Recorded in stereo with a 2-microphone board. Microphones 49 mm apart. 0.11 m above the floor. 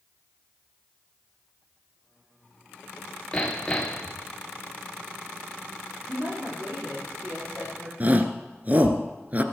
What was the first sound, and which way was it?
Hammering, 20° left (ahead or behind).